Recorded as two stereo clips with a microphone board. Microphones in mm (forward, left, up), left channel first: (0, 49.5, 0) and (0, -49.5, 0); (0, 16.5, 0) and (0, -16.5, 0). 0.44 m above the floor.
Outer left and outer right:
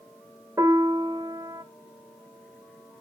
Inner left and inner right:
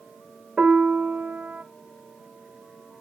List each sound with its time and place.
0.6 s a piano: 35° right (ahead or behind), 0.8 m